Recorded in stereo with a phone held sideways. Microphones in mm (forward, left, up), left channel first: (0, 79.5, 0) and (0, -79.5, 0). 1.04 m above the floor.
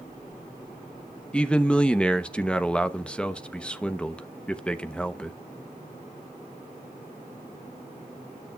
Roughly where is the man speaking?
Centre.